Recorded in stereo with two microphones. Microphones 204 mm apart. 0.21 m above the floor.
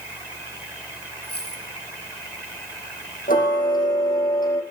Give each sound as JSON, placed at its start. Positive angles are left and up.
{"t": 1.2, "sound": "a dropped coin", "side_deg": 50, "distance_m": 5.0}
{"t": 3.3, "sound": "ticking", "side_deg": 45, "distance_m": 6.5}